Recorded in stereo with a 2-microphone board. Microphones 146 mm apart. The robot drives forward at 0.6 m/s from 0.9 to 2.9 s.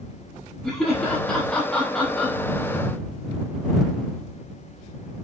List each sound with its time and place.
0.6 s laughter: 5° left (ahead or behind), 1.0 m